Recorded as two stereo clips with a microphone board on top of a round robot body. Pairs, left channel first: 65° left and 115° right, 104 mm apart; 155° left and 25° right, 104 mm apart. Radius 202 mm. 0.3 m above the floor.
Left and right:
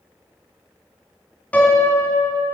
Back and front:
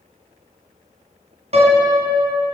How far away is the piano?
About 3 m.